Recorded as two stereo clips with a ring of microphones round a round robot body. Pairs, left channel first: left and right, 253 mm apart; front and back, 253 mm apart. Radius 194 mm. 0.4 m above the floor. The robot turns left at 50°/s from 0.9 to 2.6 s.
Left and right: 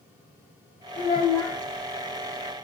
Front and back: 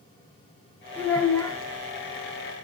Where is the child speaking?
80° left, 0.8 m; by 1.6 s 50° left, 0.8 m.